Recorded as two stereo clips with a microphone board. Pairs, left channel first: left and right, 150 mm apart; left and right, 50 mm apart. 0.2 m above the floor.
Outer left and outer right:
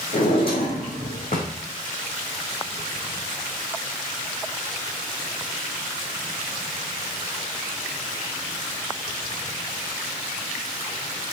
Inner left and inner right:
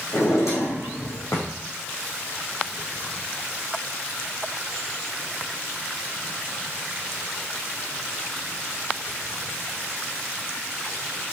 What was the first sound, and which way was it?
A drawer, 80° left.